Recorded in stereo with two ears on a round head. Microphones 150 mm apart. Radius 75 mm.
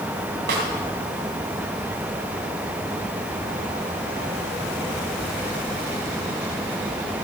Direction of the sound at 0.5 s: 65° right (ahead or behind).